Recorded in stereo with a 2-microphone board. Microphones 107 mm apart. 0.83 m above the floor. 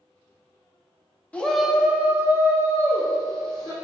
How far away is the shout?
About 0.7 m.